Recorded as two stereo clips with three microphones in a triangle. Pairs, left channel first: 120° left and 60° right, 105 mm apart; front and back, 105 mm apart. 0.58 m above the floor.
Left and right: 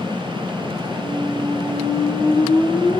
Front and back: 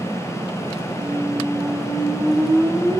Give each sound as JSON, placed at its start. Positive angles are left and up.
{"t": 1.0, "sound": "a squeak", "azimuth_deg": 90, "distance_m": 2.5}